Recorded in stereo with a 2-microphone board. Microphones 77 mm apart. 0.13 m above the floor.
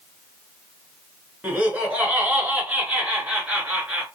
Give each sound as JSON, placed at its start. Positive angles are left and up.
{"t": 1.4, "sound": "laughter", "side_deg": -20, "distance_m": 1.7}